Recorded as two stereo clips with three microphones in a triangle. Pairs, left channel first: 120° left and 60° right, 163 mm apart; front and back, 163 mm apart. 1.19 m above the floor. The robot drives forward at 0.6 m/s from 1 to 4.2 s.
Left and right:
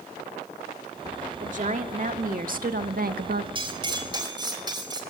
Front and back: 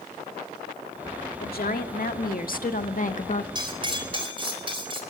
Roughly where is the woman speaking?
Ahead.